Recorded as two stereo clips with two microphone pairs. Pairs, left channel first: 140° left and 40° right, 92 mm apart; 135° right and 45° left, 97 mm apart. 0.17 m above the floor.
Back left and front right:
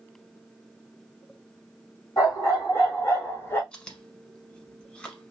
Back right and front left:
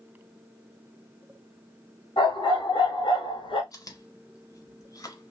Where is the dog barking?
170° right, 2 m; by 3.6 s 160° right, 1.0 m.